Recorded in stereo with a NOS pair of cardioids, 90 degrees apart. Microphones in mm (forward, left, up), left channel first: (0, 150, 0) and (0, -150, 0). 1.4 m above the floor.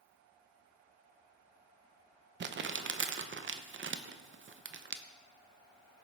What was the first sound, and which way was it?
Crumpling, 40° right.